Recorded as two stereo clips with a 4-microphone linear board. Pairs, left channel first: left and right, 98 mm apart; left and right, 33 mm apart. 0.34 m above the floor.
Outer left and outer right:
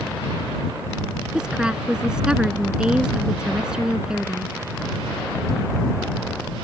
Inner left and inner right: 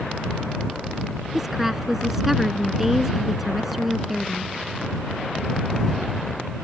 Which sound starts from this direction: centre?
A woman speaking, at 1.3 s.